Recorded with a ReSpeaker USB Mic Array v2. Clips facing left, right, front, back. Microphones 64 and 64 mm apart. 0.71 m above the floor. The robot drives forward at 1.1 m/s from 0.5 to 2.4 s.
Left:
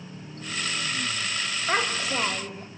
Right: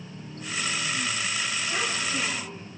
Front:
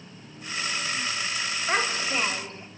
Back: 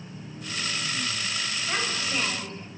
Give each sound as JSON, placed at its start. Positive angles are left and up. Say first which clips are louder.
{"t": 1.7, "sound": "a child speaking", "louder": "left 7 dB, front 5 dB", "azimuth_deg": 55, "distance_m": 3.0}